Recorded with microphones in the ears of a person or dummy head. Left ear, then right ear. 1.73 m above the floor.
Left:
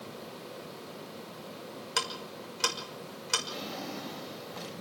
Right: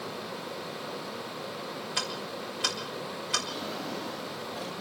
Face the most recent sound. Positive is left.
turn(degrees=20)  # may be behind; listen again after turning